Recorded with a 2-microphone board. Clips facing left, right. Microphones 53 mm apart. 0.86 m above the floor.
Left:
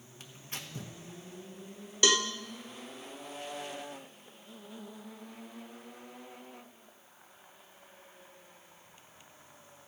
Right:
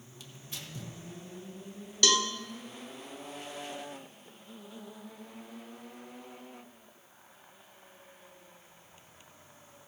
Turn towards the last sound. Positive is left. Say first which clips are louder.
# even
turn(degrees=20)  # may be behind; listen again after turning